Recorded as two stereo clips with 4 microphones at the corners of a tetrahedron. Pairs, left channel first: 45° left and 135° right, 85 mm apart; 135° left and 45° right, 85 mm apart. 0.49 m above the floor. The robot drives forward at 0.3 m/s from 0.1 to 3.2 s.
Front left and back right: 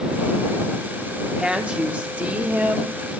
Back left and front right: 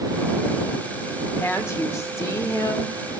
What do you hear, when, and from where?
1.4 s a woman speaking: 155° left, 1.2 m; by 2.9 s 165° left, 1.5 m